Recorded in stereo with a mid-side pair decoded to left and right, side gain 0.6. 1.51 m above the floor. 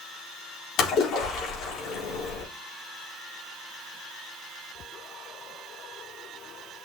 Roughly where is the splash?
Ahead left.